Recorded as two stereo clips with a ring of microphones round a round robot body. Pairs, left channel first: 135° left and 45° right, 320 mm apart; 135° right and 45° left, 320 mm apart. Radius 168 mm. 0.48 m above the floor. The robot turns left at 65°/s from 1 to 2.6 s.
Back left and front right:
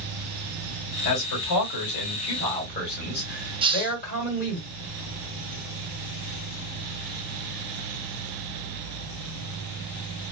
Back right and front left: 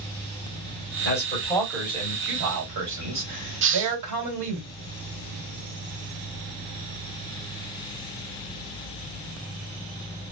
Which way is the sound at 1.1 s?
175° left.